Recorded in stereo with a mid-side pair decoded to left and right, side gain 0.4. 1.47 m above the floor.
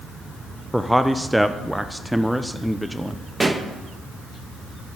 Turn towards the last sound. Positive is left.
turn(degrees=-20)